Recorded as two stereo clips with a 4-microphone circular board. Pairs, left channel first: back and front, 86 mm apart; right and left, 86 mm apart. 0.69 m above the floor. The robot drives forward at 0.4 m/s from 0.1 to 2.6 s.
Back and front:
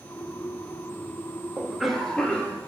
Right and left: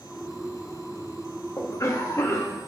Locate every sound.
1.6 s a cough: 70° right, 0.6 m; by 2.6 s 130° right, 0.7 m